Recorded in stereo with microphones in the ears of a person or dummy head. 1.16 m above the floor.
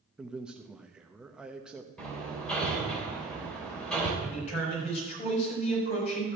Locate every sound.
0.2 s a man speaking: 5° right (ahead or behind), 1.0 m
2.0 s hammering: 5° left (ahead or behind), 3 m
4.2 s a man speaking: 35° left (ahead or behind), 5.5 m